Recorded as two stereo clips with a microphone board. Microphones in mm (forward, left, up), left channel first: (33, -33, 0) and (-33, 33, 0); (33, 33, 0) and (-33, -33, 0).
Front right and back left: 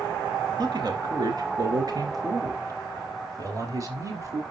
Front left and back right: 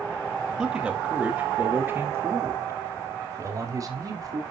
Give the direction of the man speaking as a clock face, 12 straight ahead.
7 o'clock.